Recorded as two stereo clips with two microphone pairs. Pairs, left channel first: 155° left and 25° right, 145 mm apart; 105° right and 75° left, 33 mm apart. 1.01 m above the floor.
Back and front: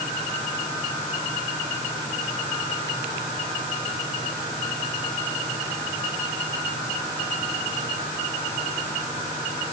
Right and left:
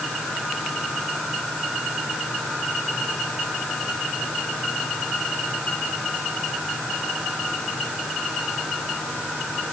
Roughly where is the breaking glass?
I don't hear breaking glass.